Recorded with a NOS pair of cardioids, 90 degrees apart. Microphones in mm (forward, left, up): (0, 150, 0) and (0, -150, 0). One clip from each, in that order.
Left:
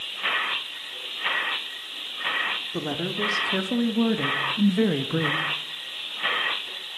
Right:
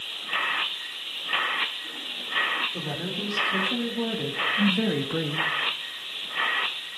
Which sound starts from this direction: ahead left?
A woman speaking, at 2.7 s.